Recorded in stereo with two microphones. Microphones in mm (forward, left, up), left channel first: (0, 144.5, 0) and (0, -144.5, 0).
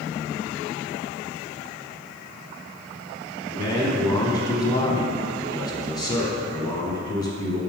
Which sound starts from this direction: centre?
A man speaking, at 3.5 s.